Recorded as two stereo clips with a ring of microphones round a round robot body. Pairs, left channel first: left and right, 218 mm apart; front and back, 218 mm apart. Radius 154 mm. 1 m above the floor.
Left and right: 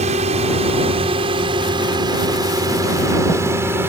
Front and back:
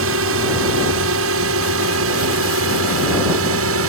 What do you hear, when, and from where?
0.0 s a drone: 155° right; by 3.9 s 175° right